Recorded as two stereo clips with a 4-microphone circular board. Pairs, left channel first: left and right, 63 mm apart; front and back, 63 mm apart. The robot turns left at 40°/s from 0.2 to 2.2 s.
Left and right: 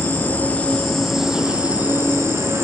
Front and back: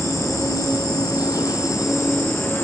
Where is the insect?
35° left, 4.5 m; by 2.6 s 45° right, 4.5 m.